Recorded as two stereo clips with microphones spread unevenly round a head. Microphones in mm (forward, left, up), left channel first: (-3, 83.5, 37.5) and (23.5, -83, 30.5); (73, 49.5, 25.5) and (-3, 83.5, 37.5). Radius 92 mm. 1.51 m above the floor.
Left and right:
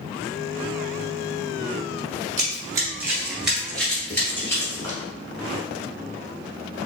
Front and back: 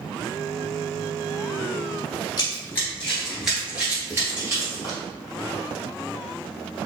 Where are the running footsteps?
40° right, 1.5 m; by 5.0 s 165° left, 2 m.